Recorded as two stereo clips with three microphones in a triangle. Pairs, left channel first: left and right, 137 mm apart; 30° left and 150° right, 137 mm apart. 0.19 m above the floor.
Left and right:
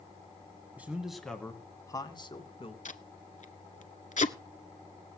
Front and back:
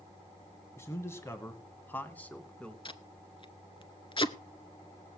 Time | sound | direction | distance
0.8 | a man speaking | 25° right | 1.4 m
2.9 | tape being pulled | 75° left | 0.8 m